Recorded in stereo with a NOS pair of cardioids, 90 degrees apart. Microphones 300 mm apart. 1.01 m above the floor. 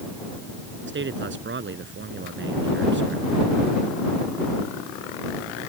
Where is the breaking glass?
No breaking glass in this recording.